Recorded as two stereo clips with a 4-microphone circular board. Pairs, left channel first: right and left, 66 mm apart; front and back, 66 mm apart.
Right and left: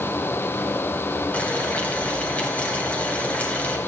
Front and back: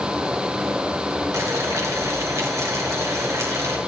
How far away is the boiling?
About 2.5 m.